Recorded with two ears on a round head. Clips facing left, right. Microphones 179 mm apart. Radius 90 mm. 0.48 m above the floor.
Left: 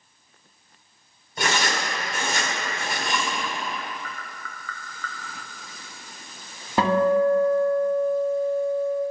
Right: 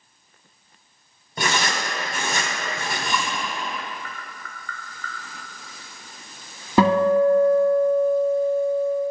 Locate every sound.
1.4 s writing: 80° right, 1.5 m
3.8 s tapping: 65° left (ahead or behind), 0.8 m
6.8 s a guitar: 80° right, 1.0 m